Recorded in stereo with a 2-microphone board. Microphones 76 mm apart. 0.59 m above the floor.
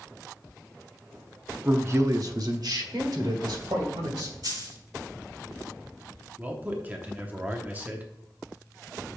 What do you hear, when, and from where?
1.6 s a man speaking: 25° right (ahead or behind), 0.6 m; by 4.3 s 65° right (ahead or behind), 2.5 m
4.4 s a dropped coin: 60° right (ahead or behind), 3 m
6.4 s a man speaking: 25° right (ahead or behind), 0.9 m